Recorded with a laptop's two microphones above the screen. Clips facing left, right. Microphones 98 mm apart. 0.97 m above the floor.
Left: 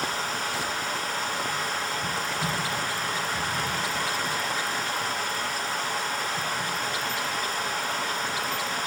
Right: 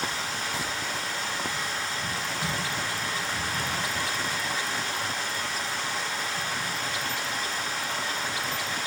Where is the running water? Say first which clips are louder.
Left 3 dB; 45° left (ahead or behind), 3 m.